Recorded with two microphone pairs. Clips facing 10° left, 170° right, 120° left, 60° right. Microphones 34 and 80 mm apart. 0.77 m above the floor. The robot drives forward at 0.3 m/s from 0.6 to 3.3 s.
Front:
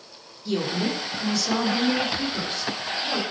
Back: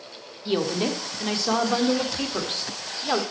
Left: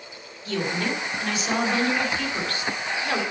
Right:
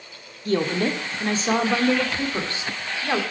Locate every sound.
0.5 s a woman speaking: 105° right, 1.6 m; by 3.2 s 130° right, 1.9 m